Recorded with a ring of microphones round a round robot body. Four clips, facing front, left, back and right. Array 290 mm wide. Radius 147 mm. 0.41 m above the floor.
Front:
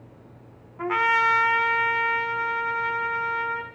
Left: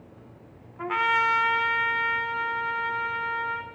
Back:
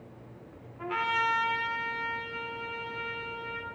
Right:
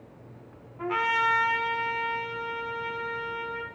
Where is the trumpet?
25° left, 1.4 m.